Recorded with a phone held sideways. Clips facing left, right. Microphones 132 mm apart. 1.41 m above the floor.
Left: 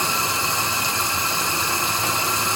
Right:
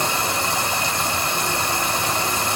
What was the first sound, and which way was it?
Running water, 65° right (ahead or behind).